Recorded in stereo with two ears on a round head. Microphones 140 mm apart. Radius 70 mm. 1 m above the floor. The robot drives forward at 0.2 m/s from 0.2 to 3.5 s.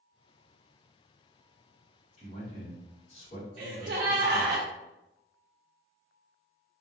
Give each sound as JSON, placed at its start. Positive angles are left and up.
{"t": 2.2, "sound": "a man speaking", "side_deg": 40, "distance_m": 1.2}
{"t": 3.6, "sound": "a gasp", "side_deg": -65, "distance_m": 0.6}